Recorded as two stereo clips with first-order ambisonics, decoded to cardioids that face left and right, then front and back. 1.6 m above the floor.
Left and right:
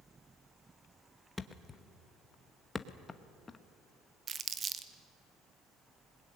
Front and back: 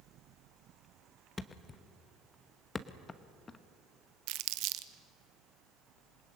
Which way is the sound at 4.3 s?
155° right.